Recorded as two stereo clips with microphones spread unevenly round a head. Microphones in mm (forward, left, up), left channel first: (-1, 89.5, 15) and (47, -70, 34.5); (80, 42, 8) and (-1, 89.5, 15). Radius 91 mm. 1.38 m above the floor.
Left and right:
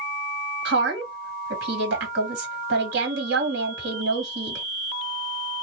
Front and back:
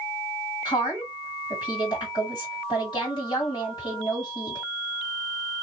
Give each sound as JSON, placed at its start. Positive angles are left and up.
{"t": 0.7, "sound": "a woman speaking", "azimuth_deg": -100, "distance_m": 1.7}